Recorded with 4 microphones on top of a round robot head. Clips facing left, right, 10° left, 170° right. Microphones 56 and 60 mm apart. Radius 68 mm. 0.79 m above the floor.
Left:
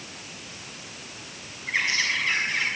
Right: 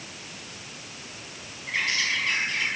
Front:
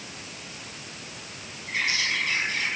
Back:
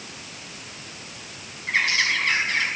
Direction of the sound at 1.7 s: 165° left.